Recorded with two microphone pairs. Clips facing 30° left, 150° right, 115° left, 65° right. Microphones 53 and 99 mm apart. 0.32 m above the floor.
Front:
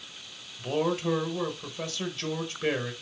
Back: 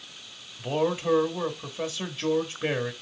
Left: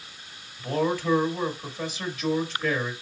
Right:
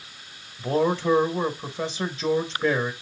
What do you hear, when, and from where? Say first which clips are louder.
0.6 s a man speaking: back 1 dB, right 3 dB; 85° right, 1.1 m